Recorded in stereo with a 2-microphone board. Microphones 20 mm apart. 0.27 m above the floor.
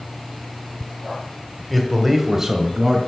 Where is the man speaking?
5° left (ahead or behind), 1.4 m; by 3.0 s 40° right (ahead or behind), 1.6 m.